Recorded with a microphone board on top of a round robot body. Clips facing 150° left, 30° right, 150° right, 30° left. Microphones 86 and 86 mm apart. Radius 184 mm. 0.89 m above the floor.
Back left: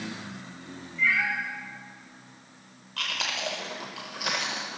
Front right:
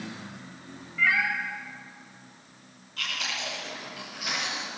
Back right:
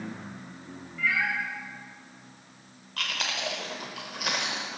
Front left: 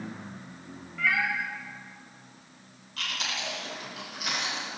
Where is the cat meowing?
5° right, 1.4 m.